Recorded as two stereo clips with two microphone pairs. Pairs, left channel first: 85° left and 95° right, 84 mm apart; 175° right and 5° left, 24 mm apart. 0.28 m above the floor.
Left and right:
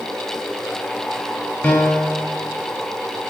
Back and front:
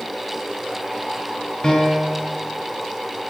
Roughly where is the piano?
Behind left.